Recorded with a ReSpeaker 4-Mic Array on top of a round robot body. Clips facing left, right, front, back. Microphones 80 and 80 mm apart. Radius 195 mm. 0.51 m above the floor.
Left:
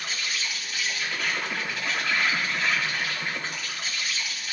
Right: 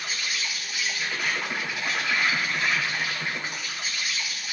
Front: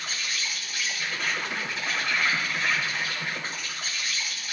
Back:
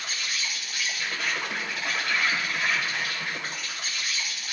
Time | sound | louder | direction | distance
0.0 | an insect | even, even | 165° right | 3.5 m